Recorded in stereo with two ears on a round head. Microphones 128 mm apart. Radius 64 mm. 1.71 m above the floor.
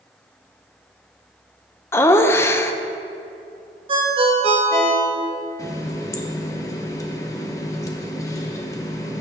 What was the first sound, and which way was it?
Laughter, 20° left (ahead or behind).